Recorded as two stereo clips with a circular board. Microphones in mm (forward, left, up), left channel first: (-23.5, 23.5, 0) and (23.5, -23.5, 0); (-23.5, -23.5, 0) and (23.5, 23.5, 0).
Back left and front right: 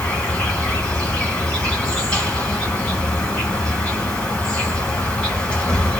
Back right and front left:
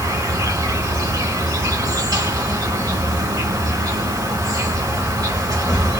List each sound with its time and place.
0.0 s an insect: 60° left, 1.4 m